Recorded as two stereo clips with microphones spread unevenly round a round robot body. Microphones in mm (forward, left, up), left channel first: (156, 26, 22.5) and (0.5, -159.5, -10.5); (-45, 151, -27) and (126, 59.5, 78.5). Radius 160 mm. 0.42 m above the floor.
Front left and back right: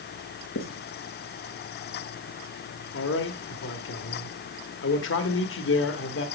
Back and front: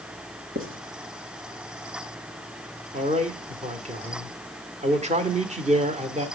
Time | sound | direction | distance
0.6 | writing | 20° left | 2.5 m
2.9 | a man speaking | 45° left | 1.5 m